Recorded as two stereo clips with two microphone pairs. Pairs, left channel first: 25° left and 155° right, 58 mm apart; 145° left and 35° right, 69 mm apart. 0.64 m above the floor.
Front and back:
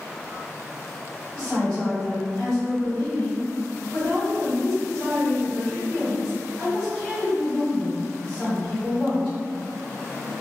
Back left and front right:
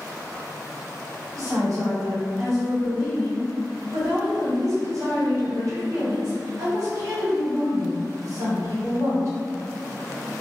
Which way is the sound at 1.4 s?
45° right.